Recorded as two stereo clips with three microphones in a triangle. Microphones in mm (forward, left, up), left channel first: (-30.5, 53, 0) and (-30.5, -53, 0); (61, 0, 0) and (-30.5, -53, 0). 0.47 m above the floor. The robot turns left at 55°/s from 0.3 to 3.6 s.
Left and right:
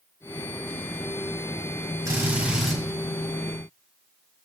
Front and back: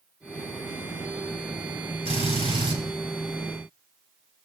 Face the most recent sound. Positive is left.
turn(degrees=130)